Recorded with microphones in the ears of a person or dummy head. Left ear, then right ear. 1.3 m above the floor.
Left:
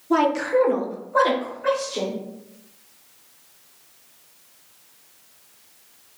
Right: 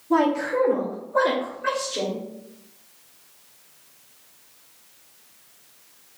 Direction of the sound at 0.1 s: 30° left (ahead or behind).